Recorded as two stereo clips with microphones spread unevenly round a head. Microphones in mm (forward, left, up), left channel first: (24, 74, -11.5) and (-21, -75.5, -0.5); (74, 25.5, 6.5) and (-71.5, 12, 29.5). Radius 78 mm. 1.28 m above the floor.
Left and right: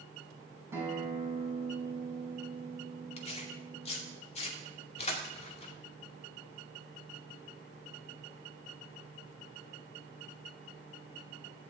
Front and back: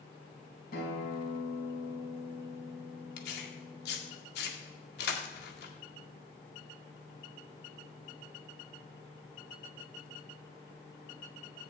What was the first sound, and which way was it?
A guitar, 35° right.